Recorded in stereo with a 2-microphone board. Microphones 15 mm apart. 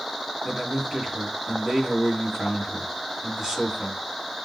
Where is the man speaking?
35° right (ahead or behind), 2.5 m.